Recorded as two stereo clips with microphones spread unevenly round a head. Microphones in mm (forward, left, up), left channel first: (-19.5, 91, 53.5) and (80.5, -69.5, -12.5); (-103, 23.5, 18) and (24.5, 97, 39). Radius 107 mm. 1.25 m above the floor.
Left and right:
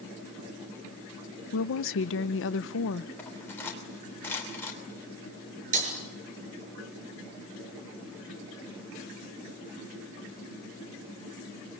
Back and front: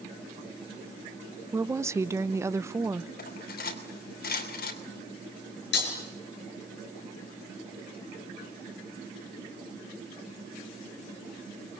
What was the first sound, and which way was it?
A woman speaking, 105° left.